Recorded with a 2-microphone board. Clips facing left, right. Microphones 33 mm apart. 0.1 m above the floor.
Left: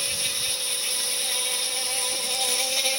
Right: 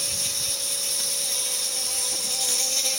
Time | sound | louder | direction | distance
0.0 | an insect | left 2 dB | 30° left (ahead or behind) | ?